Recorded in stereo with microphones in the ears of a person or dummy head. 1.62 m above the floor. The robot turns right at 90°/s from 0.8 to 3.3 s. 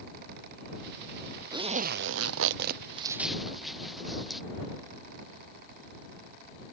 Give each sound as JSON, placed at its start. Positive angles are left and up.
{"t": 1.5, "sound": "a zipper", "side_deg": -15}